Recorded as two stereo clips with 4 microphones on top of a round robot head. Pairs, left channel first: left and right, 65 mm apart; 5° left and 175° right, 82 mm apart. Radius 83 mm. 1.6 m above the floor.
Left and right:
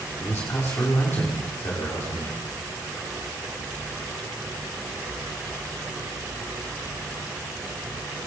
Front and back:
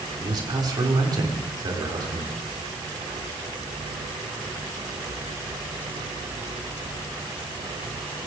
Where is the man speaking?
150° left, 6.5 m.